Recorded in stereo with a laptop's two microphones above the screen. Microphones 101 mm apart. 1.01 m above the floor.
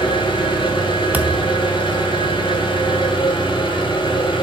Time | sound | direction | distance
0.0 | an engine running | 50° left (ahead or behind) | 2.5 m
1.1 | a thud | 15° right (ahead or behind) | 0.7 m